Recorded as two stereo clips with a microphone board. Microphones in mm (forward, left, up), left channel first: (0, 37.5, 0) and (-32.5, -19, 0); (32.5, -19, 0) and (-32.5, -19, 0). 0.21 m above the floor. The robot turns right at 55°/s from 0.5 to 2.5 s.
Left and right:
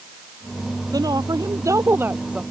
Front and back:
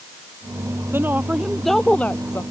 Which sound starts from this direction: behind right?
A woman speaking, at 0.9 s.